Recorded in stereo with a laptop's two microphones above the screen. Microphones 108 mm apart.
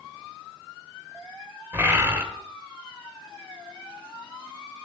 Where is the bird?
25° right (ahead or behind), 3 m.